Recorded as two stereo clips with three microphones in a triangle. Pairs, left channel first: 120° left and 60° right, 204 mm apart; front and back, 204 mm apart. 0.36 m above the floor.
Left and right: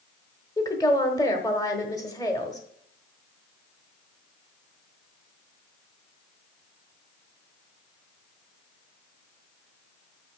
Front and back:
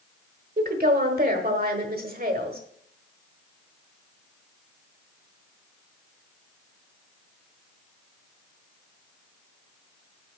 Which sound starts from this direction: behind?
A woman speaking, at 0.6 s.